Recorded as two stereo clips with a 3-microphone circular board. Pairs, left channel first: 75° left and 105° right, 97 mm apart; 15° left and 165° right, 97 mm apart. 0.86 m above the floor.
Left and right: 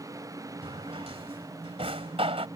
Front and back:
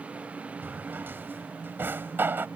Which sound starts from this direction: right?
A drawer, at 0.6 s.